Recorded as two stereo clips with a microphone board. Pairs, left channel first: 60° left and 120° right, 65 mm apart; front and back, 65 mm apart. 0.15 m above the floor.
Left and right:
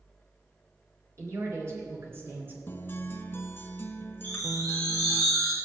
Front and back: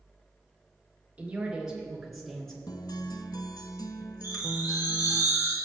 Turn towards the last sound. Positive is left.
turn(degrees=-125)